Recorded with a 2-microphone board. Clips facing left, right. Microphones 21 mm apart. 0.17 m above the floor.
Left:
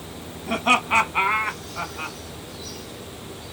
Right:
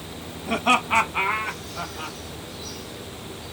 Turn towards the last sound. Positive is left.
turn(degrees=45)  # may be behind; listen again after turning